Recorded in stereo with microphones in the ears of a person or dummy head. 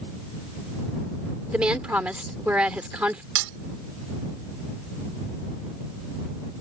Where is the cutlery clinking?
65° right (ahead or behind).